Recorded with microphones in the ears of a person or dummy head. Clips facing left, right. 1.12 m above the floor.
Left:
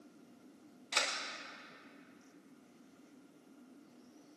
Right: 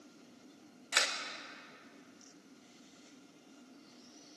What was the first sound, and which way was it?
A camera shutter, 10° right (ahead or behind).